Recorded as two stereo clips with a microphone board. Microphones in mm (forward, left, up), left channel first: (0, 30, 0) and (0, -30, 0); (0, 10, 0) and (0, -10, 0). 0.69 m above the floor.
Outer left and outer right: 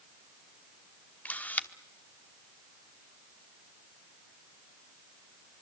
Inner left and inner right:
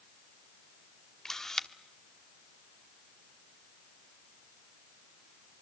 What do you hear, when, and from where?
1.2 s a camera shutter: 25° left (ahead or behind), 1.1 m